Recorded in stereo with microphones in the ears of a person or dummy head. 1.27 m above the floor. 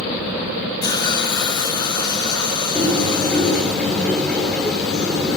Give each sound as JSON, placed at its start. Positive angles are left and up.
{"t": 0.8, "sound": "a hiss", "side_deg": 25, "distance_m": 2.0}
{"t": 2.8, "sound": "a bird", "side_deg": 0, "distance_m": 4.0}